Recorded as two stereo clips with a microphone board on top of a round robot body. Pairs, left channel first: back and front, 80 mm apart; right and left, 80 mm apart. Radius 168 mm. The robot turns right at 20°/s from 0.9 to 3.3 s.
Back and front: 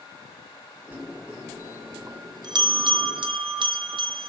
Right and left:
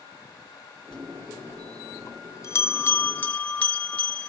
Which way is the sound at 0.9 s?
65° right.